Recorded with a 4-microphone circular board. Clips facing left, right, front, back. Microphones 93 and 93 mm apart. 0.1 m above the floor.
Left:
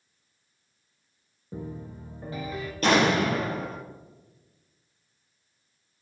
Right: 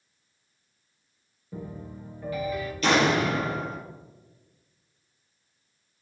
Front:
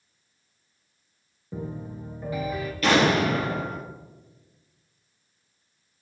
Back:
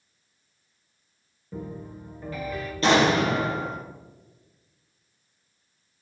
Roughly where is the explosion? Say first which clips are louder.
Left 1 dB, back 1 dB; behind left.